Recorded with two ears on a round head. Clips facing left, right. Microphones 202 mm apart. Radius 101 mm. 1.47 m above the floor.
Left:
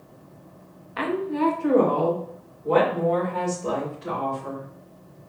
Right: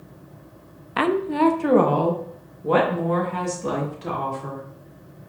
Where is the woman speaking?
65° right (ahead or behind), 0.5 m; by 4.6 s 70° right (ahead or behind), 2.5 m.